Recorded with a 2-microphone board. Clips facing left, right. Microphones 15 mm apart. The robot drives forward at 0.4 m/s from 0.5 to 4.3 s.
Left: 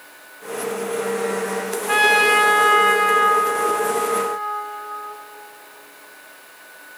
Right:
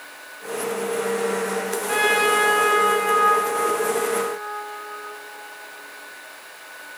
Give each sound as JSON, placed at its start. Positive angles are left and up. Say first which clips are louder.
{"t": 1.9, "sound": "a trumpet", "louder": "left 4 dB", "side_deg": 25, "distance_m": 1.1}